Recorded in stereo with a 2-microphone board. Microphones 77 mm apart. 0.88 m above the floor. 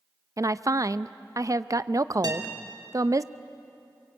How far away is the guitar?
About 2.5 m.